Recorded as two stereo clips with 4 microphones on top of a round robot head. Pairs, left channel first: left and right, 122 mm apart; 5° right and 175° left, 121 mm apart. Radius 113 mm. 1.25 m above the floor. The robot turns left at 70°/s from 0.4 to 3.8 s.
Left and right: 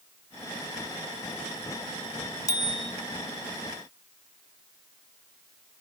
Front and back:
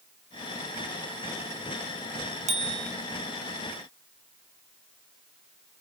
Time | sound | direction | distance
2.5 | a bicycle bell | 150° left | 3 m